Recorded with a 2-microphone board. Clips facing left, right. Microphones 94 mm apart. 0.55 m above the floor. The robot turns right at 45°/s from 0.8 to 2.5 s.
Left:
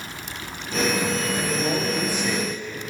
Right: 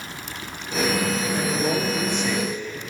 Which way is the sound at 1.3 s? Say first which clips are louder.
Right 1 dB; 30° right.